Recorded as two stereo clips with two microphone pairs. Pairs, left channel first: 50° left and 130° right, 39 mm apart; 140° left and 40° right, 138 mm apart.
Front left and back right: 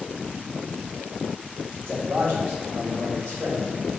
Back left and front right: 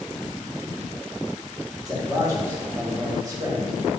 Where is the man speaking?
105° right, 1.5 m.